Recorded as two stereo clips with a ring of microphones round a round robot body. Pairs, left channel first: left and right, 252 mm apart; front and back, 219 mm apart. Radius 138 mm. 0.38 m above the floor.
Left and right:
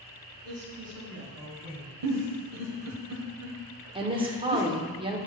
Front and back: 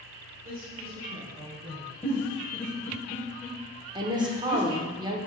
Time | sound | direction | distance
0.4 | a woman speaking | 135° right | 2.5 m
2.0 | a giggle | 80° right | 1.1 m
4.0 | a woman speaking | 135° right | 1.0 m